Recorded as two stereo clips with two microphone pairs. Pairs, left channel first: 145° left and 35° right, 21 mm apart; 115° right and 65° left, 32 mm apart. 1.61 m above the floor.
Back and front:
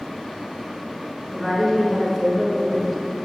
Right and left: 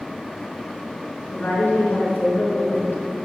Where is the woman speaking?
130° right, 4.5 m.